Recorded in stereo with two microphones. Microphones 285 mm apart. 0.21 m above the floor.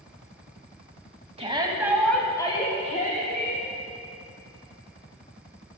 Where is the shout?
20° right (ahead or behind), 1.1 m; by 3.7 s 40° left (ahead or behind), 1.5 m.